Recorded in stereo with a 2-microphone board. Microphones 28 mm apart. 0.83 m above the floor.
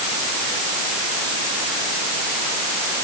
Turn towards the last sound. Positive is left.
No sound to turn to.